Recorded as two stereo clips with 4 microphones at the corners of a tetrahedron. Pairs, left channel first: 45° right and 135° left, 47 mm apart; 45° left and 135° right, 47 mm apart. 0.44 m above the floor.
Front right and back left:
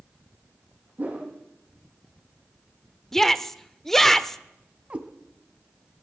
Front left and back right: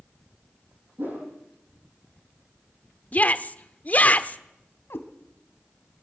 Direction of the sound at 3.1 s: 30° left.